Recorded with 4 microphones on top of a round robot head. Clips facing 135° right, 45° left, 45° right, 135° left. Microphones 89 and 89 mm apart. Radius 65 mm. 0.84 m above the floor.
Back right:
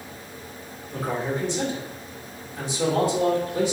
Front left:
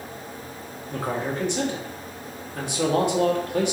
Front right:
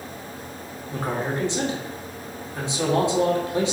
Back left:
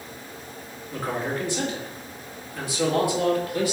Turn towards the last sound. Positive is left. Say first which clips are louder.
# even, front right 1 dB
turn(degrees=20)